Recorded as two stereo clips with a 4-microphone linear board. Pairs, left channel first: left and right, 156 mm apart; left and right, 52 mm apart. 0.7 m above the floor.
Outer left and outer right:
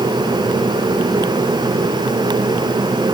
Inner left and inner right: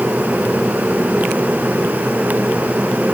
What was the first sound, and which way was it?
Only background noise.